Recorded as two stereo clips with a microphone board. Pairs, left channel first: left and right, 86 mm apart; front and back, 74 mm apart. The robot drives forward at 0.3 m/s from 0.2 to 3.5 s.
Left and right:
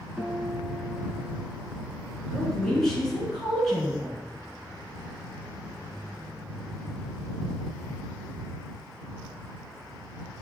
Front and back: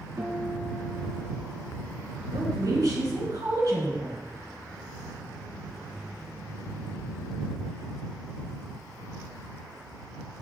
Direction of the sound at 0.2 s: 170° right.